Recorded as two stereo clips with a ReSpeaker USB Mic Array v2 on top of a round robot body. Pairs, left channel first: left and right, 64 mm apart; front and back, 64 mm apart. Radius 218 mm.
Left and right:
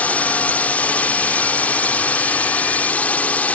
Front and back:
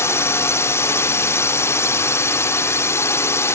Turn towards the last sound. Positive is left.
turn(degrees=25)